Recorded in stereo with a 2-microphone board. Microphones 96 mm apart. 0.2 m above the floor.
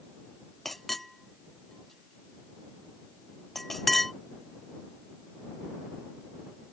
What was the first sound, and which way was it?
A clink, 5° left (ahead or behind).